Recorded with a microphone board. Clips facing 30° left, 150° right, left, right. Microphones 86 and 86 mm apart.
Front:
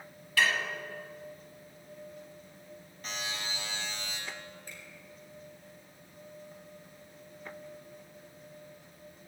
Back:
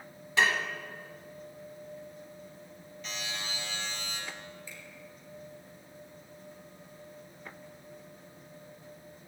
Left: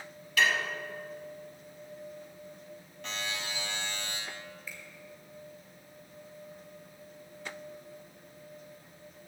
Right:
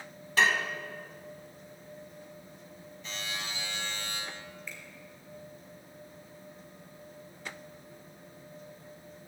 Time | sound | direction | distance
0.4 | dishes clattering | 105° right | 1.1 m
3.0 | a buzzer | 75° left | 4.5 m
4.7 | a finger snap | 5° left | 2.5 m